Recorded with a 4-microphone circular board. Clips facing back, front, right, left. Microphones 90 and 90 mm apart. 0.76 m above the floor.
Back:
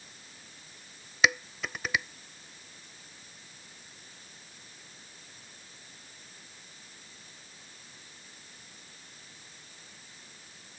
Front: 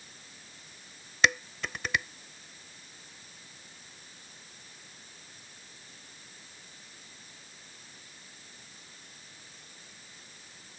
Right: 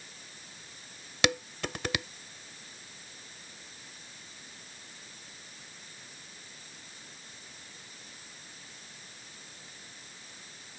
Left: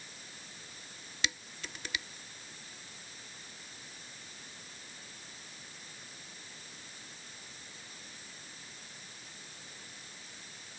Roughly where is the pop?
I don't hear a pop.